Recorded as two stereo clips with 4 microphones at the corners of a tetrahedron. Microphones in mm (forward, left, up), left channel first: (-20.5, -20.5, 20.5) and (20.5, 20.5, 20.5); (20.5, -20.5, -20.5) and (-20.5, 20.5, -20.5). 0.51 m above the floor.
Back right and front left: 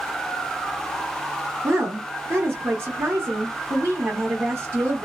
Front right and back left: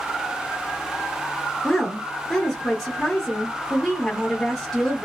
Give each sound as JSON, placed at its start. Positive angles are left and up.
{"t": 1.6, "sound": "a woman speaking", "azimuth_deg": 40, "distance_m": 0.9}